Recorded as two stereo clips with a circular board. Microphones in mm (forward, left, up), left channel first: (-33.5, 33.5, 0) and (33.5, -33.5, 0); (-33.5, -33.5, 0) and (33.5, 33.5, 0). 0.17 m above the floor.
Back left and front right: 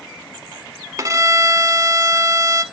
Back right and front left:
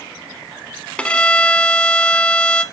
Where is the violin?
65° right, 0.8 m.